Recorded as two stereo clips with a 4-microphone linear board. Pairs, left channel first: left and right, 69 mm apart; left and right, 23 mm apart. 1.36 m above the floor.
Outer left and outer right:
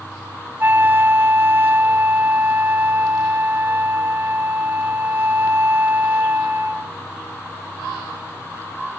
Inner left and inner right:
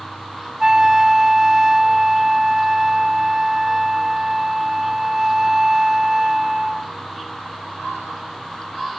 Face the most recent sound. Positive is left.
turn(degrees=-25)  # may be behind; listen again after turning